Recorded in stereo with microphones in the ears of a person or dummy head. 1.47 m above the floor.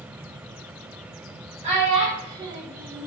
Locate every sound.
1.6 s a child speaking: 35° right (ahead or behind), 1.1 m; by 3.1 s 5° left (ahead or behind), 0.5 m